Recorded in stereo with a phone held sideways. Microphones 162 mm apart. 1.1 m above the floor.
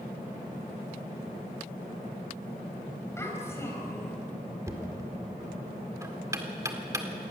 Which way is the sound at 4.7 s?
20° right (ahead or behind).